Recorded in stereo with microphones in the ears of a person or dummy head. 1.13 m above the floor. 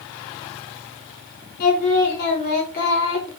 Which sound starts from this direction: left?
Singing, at 1.6 s.